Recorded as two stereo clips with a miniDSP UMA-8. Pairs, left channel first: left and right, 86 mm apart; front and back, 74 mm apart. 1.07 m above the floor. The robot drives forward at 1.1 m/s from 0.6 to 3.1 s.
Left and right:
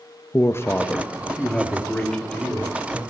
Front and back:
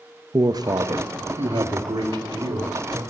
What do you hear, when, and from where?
0.3 s a man speaking: 150° left, 0.7 m; by 3.1 s 175° left, 3.5 m